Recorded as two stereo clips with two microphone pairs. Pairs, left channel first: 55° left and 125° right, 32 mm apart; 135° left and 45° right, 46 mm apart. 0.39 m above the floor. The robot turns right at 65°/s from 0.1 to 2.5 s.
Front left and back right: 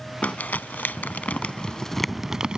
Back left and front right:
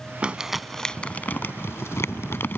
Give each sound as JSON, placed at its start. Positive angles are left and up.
{"t": 0.2, "sound": "crumpling", "azimuth_deg": 20}